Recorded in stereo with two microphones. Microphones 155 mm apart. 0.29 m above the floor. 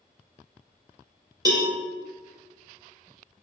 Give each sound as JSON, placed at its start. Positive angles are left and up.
{"t": 1.4, "sound": "a cowbell", "side_deg": -25, "distance_m": 0.6}